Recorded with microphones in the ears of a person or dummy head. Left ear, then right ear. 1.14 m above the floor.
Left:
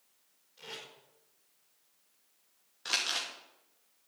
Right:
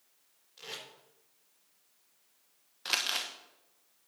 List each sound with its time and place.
0.6 s tape being pulled: 10° right (ahead or behind), 4 m
2.9 s crumpling: 25° right (ahead or behind), 1.1 m